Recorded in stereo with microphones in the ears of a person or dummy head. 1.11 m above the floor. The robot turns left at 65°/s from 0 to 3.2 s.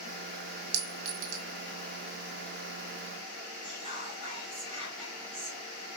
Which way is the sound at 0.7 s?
90° right.